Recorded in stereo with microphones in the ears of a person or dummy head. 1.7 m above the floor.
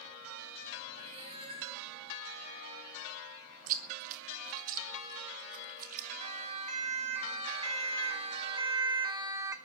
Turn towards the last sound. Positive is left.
turn(degrees=-20)  # may be behind; listen again after turning